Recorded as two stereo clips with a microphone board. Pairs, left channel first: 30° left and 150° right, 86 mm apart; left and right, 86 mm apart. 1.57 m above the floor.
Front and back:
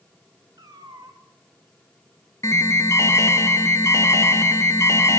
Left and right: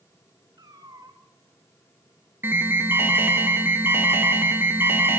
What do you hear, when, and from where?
0.6 s a cat meowing: 120° right, 2.5 m
2.4 s an alarm: 25° right, 1.9 m